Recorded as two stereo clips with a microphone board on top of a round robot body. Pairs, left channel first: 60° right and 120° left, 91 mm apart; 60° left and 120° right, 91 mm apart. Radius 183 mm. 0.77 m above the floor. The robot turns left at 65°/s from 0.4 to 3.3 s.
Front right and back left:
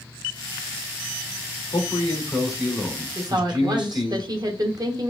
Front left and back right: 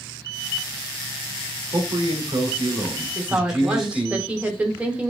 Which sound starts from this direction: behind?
A woman speaking, at 3.1 s.